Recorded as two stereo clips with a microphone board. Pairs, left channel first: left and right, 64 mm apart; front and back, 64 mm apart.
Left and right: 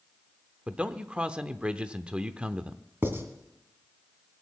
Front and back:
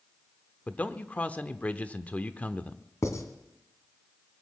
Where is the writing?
35° right, 1.9 m.